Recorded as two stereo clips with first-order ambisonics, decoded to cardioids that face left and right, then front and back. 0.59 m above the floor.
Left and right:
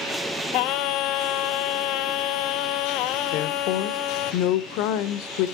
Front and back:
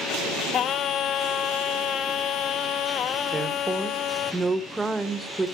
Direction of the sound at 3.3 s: 100° left.